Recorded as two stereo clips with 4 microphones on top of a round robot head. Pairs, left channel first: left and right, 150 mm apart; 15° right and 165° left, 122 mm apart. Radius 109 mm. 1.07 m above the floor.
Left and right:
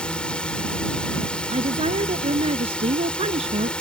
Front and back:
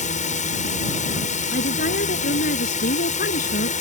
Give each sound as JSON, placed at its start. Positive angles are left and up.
{"t": 0.0, "sound": "a drone", "azimuth_deg": 5}
{"t": 1.5, "sound": "a woman speaking", "azimuth_deg": -30}